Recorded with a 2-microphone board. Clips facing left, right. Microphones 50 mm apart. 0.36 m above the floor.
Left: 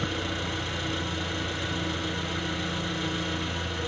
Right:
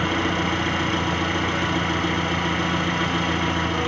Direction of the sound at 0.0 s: 60° right (ahead or behind).